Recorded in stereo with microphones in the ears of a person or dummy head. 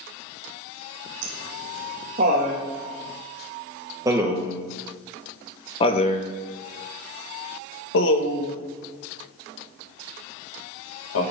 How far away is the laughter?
About 2.5 m.